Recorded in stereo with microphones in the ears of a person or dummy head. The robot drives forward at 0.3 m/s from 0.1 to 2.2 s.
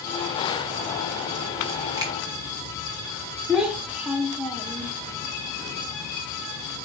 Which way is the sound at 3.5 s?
10° right (ahead or behind).